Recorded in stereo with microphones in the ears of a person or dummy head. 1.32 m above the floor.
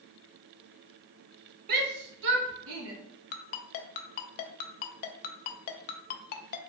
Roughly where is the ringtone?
Left.